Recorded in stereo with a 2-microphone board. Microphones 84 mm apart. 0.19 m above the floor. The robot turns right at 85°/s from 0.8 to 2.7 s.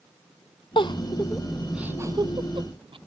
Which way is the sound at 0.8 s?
70° left (ahead or behind).